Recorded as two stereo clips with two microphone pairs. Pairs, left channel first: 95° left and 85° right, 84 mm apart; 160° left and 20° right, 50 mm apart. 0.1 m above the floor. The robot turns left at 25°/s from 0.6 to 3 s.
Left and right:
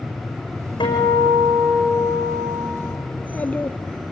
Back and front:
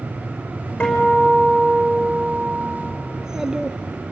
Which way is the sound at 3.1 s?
40° left.